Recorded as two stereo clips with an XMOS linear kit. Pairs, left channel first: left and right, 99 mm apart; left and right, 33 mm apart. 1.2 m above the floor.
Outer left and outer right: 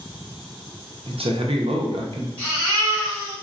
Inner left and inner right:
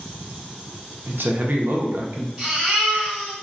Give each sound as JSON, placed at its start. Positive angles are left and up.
{"t": 1.1, "sound": "a man speaking", "side_deg": -75, "distance_m": 0.6}
{"t": 2.4, "sound": "a baby crying", "side_deg": -25, "distance_m": 1.8}